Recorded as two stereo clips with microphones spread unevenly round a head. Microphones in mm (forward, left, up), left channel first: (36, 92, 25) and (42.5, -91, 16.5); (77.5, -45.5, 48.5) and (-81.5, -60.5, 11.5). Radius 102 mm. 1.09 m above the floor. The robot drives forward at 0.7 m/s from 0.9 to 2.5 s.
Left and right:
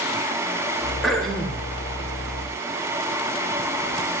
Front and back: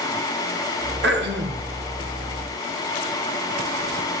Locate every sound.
1.0 s throat clearing: straight behind, 1.6 m